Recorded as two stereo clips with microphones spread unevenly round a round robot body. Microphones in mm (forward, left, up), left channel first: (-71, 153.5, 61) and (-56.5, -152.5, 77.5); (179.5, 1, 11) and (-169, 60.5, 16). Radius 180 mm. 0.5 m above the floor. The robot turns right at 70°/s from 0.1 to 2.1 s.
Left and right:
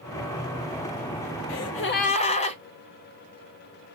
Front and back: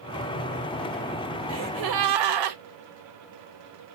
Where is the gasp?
120° left, 1.0 m; by 2.6 s 160° left, 1.0 m.